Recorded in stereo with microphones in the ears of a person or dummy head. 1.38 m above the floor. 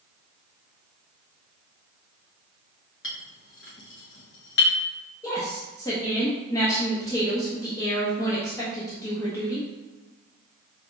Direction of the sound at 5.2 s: 15° left (ahead or behind).